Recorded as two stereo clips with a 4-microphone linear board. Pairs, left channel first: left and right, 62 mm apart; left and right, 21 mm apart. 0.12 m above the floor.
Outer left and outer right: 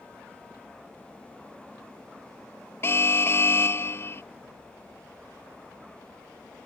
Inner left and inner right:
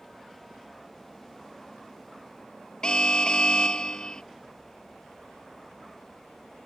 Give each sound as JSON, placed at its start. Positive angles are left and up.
{"t": 2.8, "sound": "an alarm", "side_deg": 40}